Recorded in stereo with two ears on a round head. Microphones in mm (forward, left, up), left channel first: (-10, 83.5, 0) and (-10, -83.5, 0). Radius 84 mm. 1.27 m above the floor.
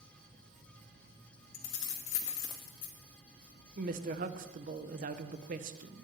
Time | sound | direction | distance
1.5 | keys jangling | 80° left | 1.9 m
3.8 | a woman speaking | 45° right (ahead or behind) | 0.9 m